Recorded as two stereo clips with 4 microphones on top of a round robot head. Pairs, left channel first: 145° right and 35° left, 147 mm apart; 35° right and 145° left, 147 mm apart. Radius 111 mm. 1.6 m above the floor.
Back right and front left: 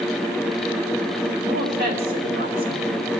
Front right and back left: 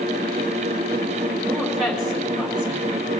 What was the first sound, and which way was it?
A woman speaking, 60° left.